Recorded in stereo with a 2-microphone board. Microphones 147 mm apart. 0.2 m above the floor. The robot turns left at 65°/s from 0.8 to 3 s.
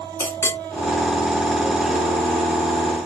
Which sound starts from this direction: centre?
A clink, at 0.2 s.